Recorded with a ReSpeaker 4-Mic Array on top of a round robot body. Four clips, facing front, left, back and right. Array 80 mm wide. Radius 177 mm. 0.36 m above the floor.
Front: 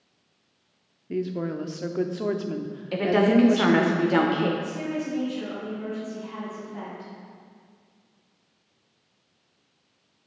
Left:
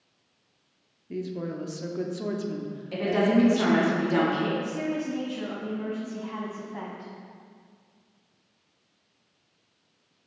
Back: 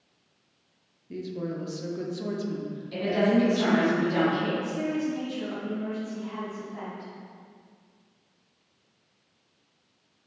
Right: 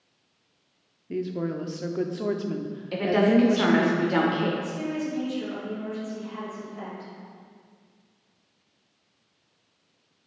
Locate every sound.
1.1 s a woman speaking: 25° right, 1.0 m
2.9 s a woman speaking: 20° right, 2 m
4.6 s a woman speaking: 90° left, 3.5 m